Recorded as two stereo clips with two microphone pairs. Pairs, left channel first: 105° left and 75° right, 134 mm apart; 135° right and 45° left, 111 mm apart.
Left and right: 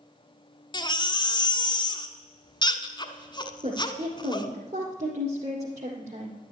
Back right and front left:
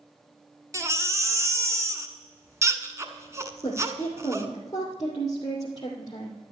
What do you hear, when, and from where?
0.7 s a baby crying: 85° left, 1.1 m
3.6 s a woman speaking: 85° right, 2.5 m